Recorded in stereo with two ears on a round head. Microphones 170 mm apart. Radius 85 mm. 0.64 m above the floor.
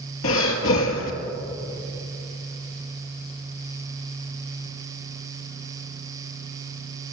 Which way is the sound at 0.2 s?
75° left (ahead or behind).